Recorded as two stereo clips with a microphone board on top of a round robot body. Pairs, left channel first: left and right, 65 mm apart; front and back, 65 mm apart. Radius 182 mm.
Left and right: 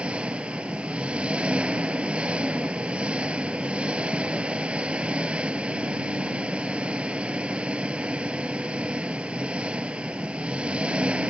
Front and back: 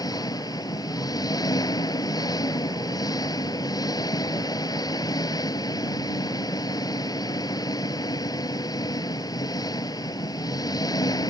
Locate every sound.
0.0 s an engine running: 20° right